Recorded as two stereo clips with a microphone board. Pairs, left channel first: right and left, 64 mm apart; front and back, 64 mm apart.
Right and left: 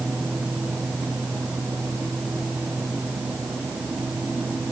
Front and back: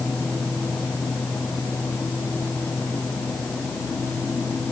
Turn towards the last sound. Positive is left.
No sound to turn to.